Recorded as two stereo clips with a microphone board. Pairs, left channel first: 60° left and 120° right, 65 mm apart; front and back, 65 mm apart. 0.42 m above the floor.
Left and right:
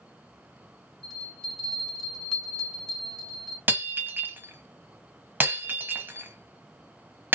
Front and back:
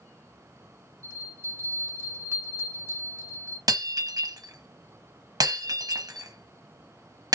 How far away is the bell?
About 1.8 m.